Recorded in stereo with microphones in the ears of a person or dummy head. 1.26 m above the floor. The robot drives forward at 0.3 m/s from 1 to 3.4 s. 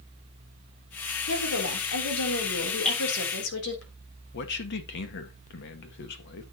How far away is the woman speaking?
About 3.5 m.